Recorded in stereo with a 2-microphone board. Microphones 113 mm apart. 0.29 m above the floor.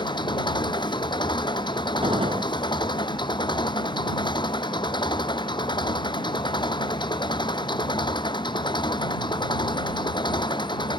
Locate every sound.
0.0 s an engine running: 40° left (ahead or behind)
2.0 s a gunshot: 50° right (ahead or behind)